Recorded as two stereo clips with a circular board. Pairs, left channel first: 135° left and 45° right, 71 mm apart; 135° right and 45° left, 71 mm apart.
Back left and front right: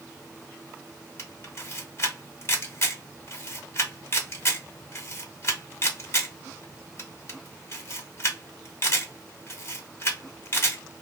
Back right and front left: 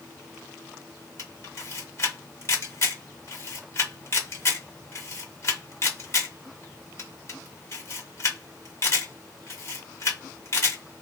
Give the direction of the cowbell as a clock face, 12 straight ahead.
No cowbell in this recording.